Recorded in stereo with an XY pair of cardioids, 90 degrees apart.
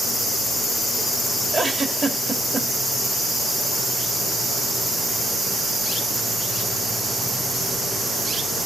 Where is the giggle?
35° right, 2.5 m.